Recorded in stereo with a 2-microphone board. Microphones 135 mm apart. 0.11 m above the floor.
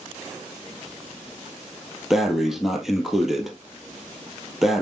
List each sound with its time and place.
2.1 s breathing: 5° right (ahead or behind), 1.6 m